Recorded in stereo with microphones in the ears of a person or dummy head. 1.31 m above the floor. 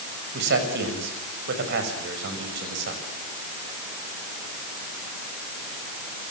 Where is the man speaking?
65° right (ahead or behind), 6.5 m.